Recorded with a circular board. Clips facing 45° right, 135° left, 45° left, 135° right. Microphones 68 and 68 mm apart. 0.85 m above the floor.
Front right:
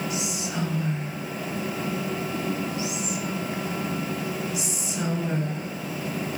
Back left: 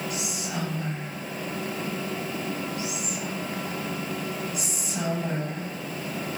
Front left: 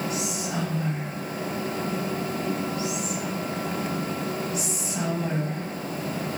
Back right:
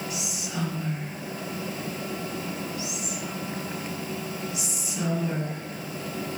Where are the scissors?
No scissors in this recording.